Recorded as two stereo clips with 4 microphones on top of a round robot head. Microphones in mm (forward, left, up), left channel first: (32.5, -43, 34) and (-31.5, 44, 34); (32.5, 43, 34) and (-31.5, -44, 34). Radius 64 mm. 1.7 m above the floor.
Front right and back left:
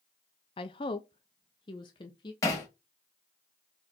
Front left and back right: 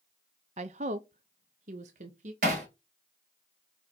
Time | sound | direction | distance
0.6 | a woman speaking | 95° right | 0.6 m
2.4 | hammering | 115° right | 3.5 m